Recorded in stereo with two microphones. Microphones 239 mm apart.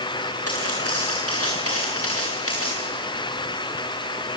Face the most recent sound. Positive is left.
turn(degrees=65)  # may be behind; listen again after turning